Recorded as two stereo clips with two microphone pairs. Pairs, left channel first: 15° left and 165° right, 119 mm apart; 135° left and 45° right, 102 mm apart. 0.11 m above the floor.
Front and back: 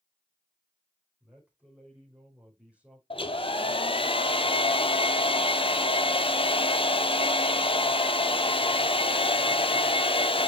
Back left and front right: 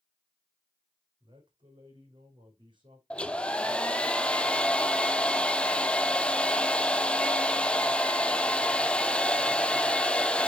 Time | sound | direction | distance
1.2 | a man speaking | 85° right | 5 m
3.1 | a hair dryer | 50° left | 0.6 m